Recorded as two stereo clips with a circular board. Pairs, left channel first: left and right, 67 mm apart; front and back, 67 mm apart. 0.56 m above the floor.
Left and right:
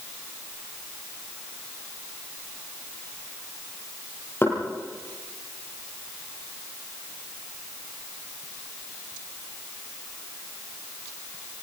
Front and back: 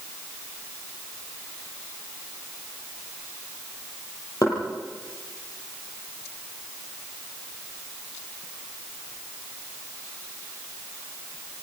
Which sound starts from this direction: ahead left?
Knocking, at 4.4 s.